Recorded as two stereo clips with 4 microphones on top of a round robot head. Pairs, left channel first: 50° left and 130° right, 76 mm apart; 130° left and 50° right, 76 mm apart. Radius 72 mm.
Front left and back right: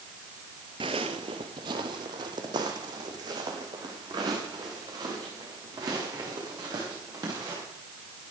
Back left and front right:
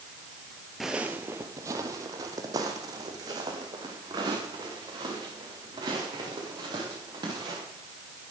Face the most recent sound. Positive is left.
turn(degrees=-90)